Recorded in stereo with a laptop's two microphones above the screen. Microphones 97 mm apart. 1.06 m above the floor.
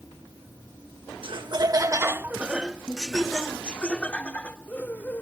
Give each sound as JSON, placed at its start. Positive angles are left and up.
{"t": 1.2, "sound": "laughter", "side_deg": -60}